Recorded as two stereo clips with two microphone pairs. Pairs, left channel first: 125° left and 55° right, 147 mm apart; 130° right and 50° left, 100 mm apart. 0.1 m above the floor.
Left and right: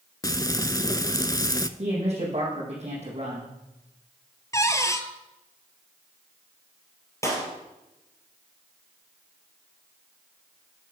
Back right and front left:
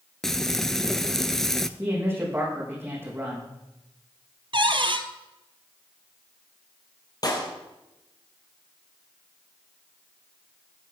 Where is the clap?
170° right, 3 m.